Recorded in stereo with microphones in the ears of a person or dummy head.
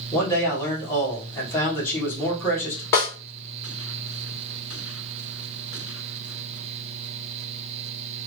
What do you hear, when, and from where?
0.1 s a man speaking: 15° left (ahead or behind), 1.5 m
2.9 s a snare drum: 15° left (ahead or behind), 0.8 m